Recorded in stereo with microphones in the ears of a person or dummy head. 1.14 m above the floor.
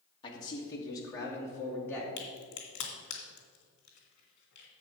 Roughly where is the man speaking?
Left.